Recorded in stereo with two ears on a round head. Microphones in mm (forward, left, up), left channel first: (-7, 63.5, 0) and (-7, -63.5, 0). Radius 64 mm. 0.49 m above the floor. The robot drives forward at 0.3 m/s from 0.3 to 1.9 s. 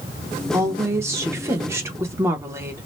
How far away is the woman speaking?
About 0.9 m.